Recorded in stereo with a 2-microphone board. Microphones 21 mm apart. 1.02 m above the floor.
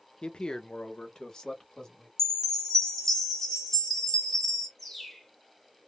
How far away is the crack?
No crack in this recording.